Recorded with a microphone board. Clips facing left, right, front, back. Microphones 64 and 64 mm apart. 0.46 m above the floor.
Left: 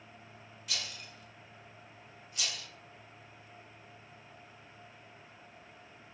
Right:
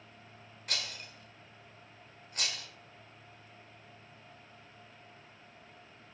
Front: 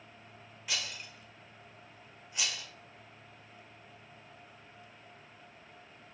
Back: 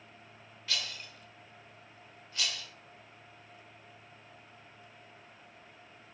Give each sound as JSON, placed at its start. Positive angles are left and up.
{"t": 0.7, "sound": "a rattle", "azimuth_deg": -70, "distance_m": 1.7}